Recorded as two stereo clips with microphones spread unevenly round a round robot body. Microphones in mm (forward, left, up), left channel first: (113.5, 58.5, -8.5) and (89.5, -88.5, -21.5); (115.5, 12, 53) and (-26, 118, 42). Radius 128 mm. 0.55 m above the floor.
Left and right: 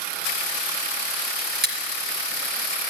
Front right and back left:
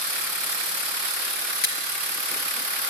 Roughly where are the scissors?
Right.